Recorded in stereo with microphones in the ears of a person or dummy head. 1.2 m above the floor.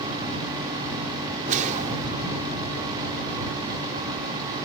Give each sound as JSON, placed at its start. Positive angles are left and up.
{"t": 1.4, "sound": "a whoosh", "side_deg": -40}